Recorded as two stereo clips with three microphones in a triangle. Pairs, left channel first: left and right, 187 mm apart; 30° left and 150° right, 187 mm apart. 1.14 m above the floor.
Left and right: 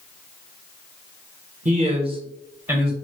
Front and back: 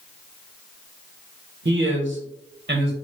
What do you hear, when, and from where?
1.6 s a man speaking: 135° right, 1.0 m; by 2.9 s straight behind, 1.2 m